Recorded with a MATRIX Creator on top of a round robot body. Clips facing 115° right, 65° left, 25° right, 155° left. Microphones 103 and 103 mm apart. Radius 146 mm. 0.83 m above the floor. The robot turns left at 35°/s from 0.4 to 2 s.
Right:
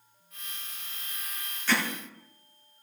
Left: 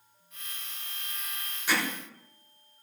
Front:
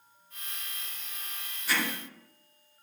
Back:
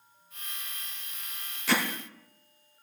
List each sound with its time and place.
1.7 s hammering: 145° left, 3.5 m; by 1.8 s 140° left, 3.5 m